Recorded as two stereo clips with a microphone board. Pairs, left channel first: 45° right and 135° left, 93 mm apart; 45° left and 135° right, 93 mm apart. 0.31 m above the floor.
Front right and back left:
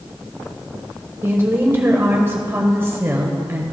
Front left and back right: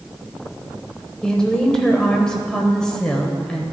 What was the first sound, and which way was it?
A woman speaking, 115° left.